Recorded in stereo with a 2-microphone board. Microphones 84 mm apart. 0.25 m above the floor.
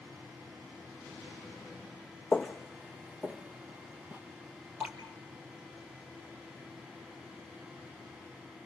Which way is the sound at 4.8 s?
15° right (ahead or behind).